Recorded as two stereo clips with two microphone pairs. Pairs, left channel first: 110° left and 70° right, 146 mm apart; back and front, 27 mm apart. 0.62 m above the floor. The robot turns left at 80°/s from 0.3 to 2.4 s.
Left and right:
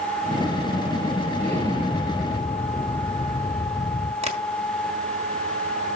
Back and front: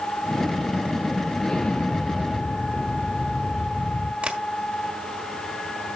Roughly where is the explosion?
Right.